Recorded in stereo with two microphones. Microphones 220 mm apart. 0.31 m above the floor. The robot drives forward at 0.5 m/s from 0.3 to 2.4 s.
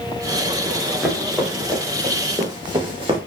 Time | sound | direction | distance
0.7 | running footsteps | 5° left (ahead or behind) | 5 m